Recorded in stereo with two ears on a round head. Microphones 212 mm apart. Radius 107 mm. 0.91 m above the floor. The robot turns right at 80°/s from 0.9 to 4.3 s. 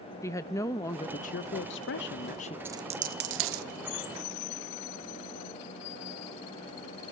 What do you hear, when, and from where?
0.2 s a woman speaking: 15° left, 0.5 m; by 2.5 s 150° left, 0.5 m
2.6 s a dropped coin: 10° right (ahead or behind), 0.6 m; by 3.6 s 65° right (ahead or behind), 0.6 m